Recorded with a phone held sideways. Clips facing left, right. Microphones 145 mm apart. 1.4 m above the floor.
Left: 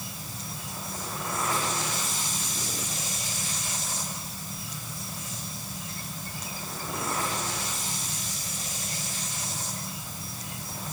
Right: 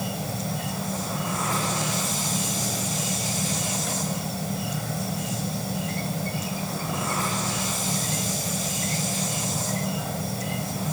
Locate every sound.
0.0 s an insect: 75° right (ahead or behind)